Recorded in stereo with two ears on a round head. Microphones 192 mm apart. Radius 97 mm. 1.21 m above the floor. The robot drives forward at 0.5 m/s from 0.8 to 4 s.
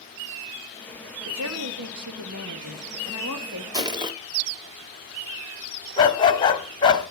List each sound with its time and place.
1.2 s a woman speaking: 70° right (ahead or behind), 1.6 m; by 3.6 s 65° right (ahead or behind), 1.6 m
3.7 s crushing: 20° right (ahead or behind), 0.9 m
6.0 s a dog barking: 25° left (ahead or behind), 1.4 m